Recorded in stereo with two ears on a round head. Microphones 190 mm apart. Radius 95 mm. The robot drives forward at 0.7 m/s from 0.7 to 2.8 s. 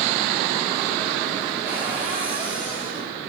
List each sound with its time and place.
1.6 s a cupboard door: 10° right (ahead or behind), 5 m; by 3.1 s 5° right (ahead or behind), 5.5 m